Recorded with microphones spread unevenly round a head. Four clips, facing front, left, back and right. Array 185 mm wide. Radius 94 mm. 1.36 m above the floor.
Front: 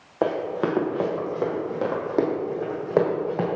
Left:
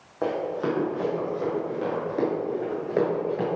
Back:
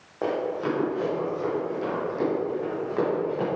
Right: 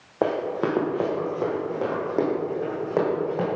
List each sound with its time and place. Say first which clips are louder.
0.2 s running footsteps: right 2 dB, front 3 dB; 50° right, 2 m; by 3.5 s straight ahead, 3 m